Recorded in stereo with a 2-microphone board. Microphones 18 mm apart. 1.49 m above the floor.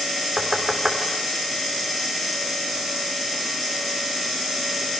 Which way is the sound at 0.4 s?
25° right (ahead or behind).